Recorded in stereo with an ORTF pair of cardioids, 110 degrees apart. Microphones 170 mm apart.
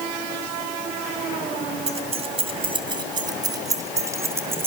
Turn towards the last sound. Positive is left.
turn(degrees=-15)